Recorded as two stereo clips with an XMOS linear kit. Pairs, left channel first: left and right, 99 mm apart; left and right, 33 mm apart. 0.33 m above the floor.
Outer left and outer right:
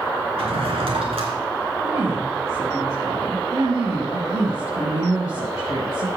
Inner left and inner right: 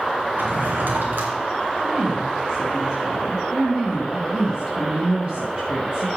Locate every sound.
0.4 s a drawer: 70° right (ahead or behind), 2.5 m
1.8 s a woman speaking: 45° right (ahead or behind), 4.5 m